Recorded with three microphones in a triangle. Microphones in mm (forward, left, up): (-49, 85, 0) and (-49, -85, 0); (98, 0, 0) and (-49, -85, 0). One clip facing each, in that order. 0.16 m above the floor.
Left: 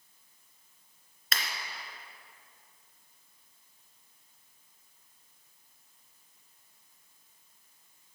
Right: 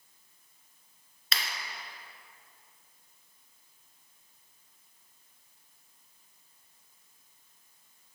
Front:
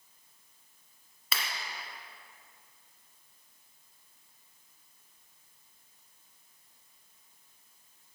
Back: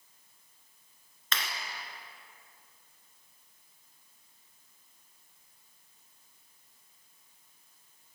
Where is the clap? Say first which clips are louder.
Left 1 dB, back 1 dB; 110° left, 2 m.